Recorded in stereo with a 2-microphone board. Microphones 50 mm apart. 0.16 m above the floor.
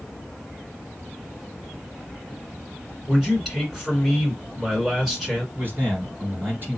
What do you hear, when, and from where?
3.1 s a man speaking: 5° right (ahead or behind), 2 m
5.5 s a man speaking: 40° right (ahead or behind), 2 m